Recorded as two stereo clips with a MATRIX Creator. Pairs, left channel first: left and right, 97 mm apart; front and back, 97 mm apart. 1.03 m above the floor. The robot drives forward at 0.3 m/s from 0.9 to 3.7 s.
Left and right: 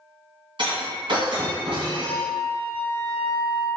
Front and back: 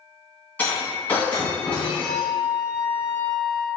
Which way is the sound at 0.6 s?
70° right.